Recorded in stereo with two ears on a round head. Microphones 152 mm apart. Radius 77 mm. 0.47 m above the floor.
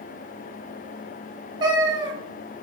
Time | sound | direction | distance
1.6 | a cat meowing | 25° right (ahead or behind) | 0.6 m